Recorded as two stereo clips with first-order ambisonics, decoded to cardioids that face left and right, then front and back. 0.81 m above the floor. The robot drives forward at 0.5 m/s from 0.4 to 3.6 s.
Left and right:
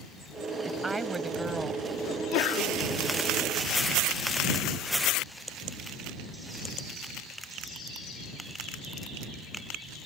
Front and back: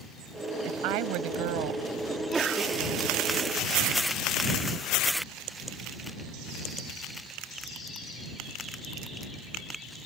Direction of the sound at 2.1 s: 95° left.